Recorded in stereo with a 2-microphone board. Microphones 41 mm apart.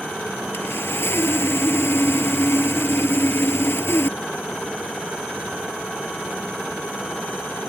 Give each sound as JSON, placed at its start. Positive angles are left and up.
{"t": 0.5, "sound": "sawing", "side_deg": 85}